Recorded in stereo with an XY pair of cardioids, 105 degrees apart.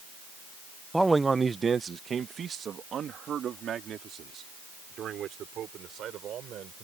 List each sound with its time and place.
0.9 s a man speaking: 5° right; by 6.8 s 65° right